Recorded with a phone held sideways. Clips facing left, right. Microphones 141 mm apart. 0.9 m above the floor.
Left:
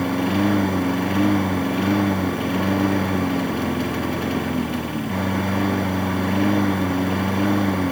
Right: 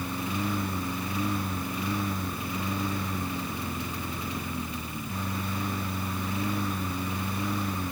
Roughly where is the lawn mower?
Left.